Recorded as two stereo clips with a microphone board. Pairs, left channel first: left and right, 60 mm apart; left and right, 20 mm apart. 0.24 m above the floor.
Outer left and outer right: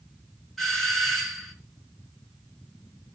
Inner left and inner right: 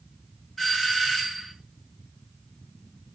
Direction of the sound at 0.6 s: 5° left (ahead or behind).